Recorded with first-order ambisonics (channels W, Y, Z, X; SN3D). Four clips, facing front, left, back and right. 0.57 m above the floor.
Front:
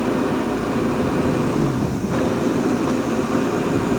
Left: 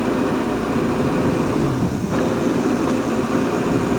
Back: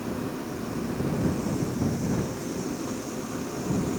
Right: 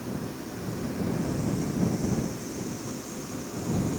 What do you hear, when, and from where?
0.0 s an engine running: 50° left